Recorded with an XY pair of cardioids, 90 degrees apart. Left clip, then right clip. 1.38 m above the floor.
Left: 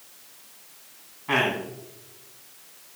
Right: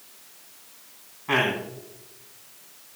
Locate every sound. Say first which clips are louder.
1.3 s a man speaking: even; straight ahead, 3 m